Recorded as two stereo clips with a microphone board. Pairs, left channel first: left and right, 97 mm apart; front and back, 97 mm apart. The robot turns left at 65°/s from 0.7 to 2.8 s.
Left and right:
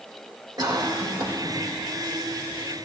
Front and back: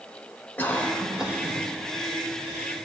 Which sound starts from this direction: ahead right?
A cough, at 0.6 s.